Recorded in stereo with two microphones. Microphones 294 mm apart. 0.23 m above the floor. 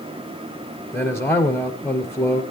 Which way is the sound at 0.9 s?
10° left (ahead or behind).